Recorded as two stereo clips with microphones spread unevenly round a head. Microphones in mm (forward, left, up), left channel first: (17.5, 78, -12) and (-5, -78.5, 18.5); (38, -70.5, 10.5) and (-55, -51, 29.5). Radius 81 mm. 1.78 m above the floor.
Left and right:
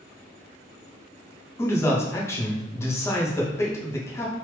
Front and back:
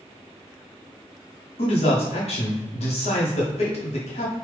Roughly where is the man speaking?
Ahead.